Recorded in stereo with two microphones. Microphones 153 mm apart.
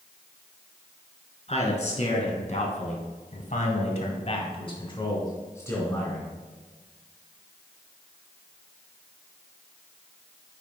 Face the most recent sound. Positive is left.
turn(degrees=10)  # may be behind; listen again after turning